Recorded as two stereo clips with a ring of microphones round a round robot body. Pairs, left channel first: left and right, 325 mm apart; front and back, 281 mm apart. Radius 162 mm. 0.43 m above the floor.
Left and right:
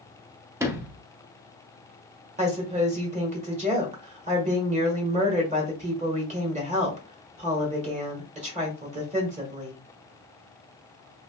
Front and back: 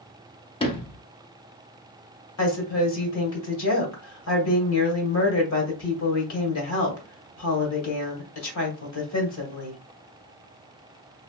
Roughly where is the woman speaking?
Ahead right.